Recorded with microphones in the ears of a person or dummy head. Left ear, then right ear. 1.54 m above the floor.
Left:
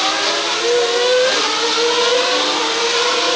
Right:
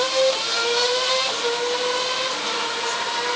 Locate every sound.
Only background noise.